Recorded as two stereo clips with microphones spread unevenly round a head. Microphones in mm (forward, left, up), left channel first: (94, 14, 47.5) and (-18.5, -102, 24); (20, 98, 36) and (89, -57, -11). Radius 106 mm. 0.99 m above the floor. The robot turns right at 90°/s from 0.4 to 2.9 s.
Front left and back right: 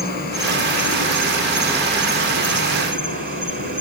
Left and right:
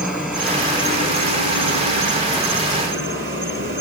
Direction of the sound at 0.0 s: 20° left.